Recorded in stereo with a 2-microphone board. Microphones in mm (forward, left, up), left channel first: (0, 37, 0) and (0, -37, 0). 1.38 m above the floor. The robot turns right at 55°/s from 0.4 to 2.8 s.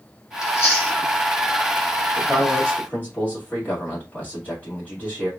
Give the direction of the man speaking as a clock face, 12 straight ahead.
12 o'clock.